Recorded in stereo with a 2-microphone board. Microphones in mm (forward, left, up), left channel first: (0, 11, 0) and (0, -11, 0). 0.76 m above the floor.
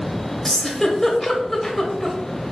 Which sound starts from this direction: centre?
A giggle, at 0.5 s.